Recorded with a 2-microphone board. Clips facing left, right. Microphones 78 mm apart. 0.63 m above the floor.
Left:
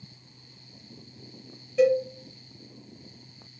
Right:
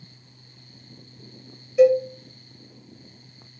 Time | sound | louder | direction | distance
1.8 | a cowbell | right 5 dB | 5° right (ahead or behind) | 0.9 m